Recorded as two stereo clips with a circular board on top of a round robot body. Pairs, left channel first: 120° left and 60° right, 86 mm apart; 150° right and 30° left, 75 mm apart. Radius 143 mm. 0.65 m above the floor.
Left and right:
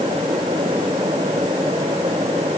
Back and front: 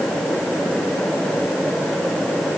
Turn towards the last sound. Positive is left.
No sound to turn to.